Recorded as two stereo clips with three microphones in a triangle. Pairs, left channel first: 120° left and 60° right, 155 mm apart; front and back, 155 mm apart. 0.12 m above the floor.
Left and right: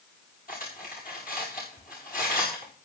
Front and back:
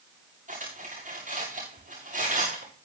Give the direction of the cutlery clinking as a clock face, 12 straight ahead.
7 o'clock.